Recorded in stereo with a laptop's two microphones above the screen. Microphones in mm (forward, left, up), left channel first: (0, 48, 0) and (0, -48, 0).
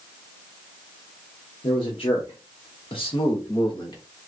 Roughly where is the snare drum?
No snare drum in this recording.